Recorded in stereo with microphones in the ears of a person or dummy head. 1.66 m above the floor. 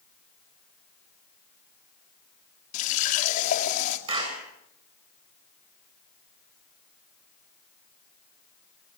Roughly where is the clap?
Right.